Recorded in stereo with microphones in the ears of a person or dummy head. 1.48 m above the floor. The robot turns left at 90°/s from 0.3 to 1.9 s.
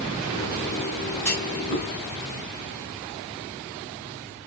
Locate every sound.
1.2 s a clunk: 10° left (ahead or behind), 2.5 m; by 1.9 s 60° left (ahead or behind), 2.5 m